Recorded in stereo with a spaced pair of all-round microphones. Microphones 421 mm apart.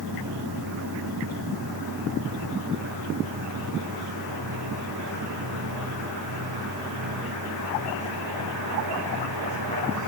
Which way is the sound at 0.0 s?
60° right (ahead or behind).